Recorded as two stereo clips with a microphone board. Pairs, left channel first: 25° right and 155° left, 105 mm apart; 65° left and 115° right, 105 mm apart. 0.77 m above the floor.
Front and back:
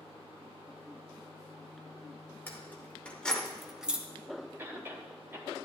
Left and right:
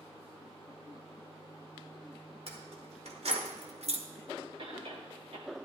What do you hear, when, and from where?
2.5 s keys jangling: 95° right, 2 m; by 4.0 s 130° right, 0.9 m
4.6 s a cough: 135° right, 3 m